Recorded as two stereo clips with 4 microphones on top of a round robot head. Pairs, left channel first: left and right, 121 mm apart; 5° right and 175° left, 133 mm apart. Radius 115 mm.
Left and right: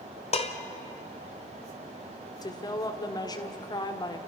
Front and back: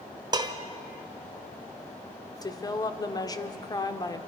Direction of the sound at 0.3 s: 120° left.